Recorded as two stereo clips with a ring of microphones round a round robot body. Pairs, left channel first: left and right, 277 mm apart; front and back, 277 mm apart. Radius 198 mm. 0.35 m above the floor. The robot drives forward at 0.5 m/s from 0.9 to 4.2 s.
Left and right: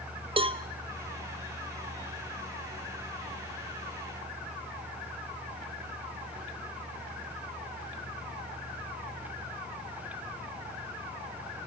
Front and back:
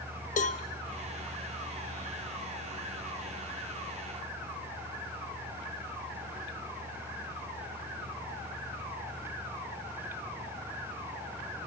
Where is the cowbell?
35° right, 1.0 m.